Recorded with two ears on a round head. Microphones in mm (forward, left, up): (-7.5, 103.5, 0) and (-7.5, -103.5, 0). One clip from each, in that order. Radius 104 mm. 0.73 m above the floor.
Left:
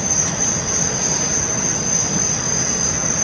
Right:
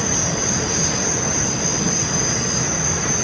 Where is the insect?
50° left (ahead or behind), 1.4 m.